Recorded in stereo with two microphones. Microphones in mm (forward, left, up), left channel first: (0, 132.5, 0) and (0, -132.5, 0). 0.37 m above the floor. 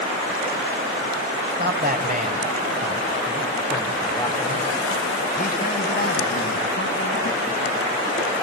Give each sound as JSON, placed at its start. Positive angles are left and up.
{"t": 1.5, "sound": "a man speaking", "side_deg": -40, "distance_m": 2.5}